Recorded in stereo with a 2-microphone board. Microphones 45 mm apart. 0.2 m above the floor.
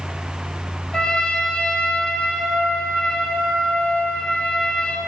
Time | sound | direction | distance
0.9 | a trumpet | 20° left (ahead or behind) | 0.8 m